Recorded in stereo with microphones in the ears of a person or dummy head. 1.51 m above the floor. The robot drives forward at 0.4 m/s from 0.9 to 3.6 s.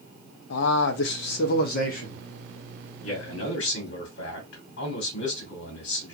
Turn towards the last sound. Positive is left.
turn(degrees=75)  # may be behind; listen again after turning